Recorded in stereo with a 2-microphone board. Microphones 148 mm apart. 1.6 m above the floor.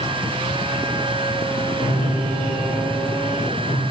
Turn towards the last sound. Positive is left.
turn(degrees=55)  # may be behind; listen again after turning